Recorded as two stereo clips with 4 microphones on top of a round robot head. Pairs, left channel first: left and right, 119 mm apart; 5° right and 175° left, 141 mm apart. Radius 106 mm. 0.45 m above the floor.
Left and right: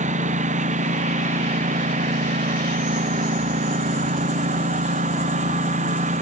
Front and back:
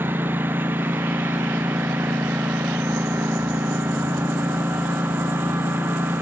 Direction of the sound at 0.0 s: 105° right.